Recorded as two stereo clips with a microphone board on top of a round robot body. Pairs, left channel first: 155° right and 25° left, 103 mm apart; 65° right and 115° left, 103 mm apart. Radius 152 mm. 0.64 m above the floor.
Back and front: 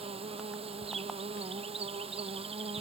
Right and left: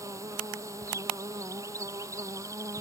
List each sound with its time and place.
0.0 s an insect: 50° left